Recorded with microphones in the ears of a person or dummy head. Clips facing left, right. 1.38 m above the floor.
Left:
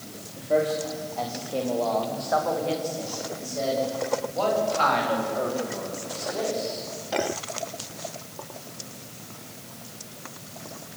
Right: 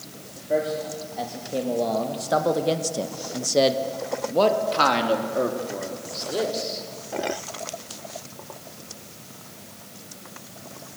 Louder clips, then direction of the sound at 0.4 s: Left 1 dB; 5° right (ahead or behind).